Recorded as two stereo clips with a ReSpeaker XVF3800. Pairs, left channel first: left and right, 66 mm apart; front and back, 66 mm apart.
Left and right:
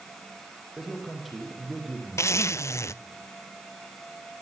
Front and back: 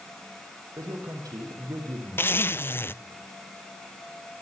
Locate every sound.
0.8 s a man speaking: straight behind, 6.5 m
2.2 s a zipper: 50° left, 0.8 m